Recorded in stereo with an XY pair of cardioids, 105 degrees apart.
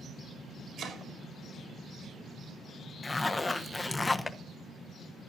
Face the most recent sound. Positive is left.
turn(degrees=15)